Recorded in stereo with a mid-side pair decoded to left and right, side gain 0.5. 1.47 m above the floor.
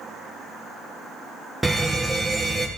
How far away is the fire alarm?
About 2 m.